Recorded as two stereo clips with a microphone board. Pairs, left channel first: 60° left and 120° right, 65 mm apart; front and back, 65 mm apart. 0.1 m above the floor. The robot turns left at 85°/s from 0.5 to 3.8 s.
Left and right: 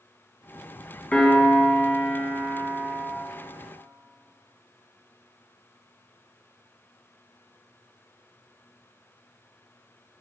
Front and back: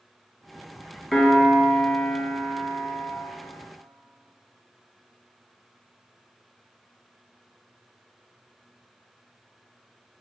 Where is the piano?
95° left, 1.7 m; by 3.1 s 80° right, 1.7 m.